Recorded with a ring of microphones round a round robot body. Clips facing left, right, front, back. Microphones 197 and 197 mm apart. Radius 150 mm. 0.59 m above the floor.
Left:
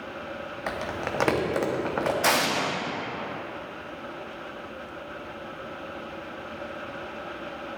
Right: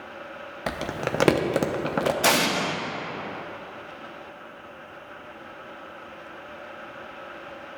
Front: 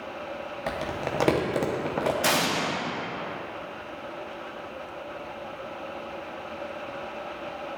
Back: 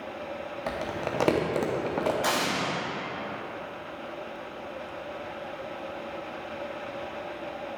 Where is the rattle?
I don't hear a rattle.